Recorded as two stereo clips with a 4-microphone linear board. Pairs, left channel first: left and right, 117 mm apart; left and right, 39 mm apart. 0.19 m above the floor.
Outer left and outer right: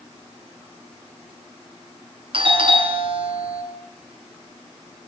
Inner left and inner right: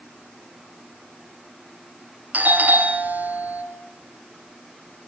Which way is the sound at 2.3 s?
45° right (ahead or behind).